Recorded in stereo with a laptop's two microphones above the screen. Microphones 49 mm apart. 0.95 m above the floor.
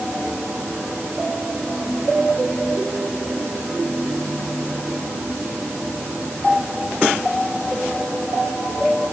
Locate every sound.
Only background noise.